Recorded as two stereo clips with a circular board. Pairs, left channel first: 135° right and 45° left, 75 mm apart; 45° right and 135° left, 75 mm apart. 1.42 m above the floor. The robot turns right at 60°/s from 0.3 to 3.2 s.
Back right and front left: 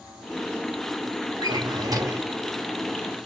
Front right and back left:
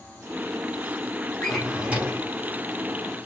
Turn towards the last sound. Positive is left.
turn(degrees=140)